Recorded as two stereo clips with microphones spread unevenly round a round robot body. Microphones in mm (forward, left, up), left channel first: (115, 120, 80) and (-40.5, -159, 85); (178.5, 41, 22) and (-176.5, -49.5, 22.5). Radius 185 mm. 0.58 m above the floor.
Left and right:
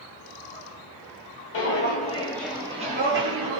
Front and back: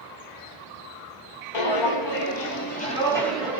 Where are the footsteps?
15° left, 0.9 m; by 3.6 s 80° right, 1.0 m.